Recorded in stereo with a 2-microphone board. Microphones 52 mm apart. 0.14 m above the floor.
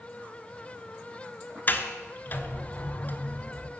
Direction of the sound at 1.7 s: 35° left (ahead or behind).